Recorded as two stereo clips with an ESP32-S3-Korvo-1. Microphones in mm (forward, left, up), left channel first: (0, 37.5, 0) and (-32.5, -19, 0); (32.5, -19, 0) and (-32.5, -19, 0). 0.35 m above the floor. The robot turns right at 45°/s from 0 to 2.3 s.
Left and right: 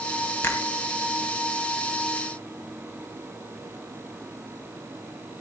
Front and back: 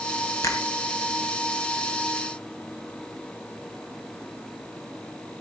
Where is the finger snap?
10° left, 2.5 m; by 0.7 s 20° left, 2.5 m.